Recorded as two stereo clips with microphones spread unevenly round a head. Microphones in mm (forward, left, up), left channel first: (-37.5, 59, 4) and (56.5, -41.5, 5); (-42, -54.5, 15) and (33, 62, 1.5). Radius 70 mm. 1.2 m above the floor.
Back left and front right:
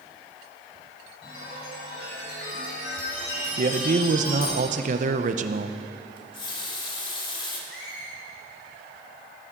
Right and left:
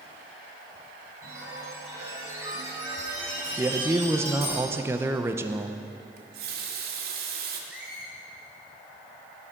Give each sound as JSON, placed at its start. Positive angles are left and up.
{"t": 1.2, "sound": "a chime", "azimuth_deg": 130, "distance_m": 4.5}
{"t": 3.6, "sound": "a man speaking", "azimuth_deg": -15, "distance_m": 0.8}
{"t": 6.2, "sound": "a running tap", "azimuth_deg": 75, "distance_m": 1.8}
{"t": 7.7, "sound": "a squeak", "azimuth_deg": 140, "distance_m": 3.5}